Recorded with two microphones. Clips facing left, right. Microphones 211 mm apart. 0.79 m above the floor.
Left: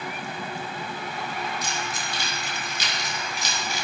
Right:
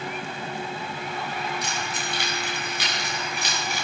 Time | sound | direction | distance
1.6 | keys jangling | 60° right (ahead or behind) | 5.5 m